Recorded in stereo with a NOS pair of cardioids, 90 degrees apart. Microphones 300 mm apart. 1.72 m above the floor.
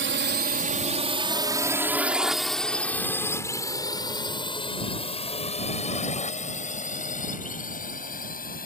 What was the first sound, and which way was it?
A drone, 40° right.